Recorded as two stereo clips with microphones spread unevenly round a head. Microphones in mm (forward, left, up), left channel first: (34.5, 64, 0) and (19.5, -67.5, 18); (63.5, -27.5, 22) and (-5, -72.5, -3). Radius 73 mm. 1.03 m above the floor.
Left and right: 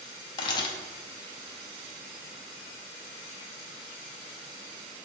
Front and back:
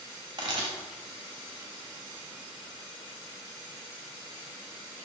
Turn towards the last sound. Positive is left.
turn(degrees=150)